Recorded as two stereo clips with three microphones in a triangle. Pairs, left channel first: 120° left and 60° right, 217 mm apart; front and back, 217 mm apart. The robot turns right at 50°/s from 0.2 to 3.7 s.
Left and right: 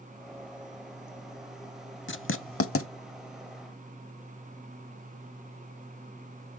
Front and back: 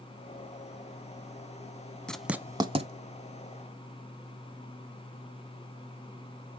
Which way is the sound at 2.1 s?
85° left.